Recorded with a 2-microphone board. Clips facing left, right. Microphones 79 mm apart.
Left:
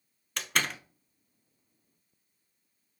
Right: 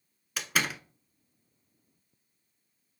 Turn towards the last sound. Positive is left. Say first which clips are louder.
# right 1 dB
turn(degrees=-5)  # may be behind; listen again after turning